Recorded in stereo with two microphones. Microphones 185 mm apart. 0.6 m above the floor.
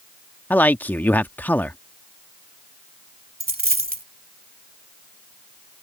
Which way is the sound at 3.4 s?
55° right (ahead or behind).